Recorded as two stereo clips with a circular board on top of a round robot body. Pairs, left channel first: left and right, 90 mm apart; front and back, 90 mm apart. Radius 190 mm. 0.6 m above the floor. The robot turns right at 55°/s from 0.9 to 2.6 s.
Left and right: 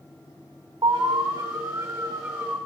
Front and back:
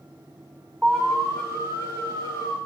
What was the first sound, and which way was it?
An alarm, 90° right.